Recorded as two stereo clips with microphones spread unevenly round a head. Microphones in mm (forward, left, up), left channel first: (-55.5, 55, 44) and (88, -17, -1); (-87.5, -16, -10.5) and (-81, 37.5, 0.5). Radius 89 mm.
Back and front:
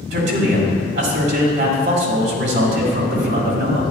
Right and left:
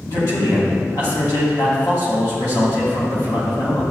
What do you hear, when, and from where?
0.1 s a man speaking: 45° right, 2.5 m